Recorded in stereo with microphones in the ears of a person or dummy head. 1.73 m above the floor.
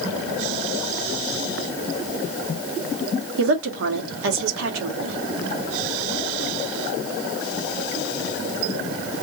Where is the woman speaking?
75° right (ahead or behind), 1.6 m.